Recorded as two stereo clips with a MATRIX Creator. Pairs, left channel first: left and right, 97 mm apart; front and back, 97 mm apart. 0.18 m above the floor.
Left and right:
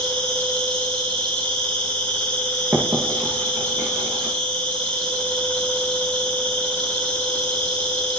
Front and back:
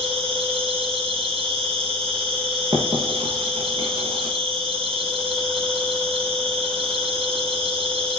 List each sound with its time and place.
0.0 s an insect: 165° left, 6 m
2.7 s writing: 150° right, 6.5 m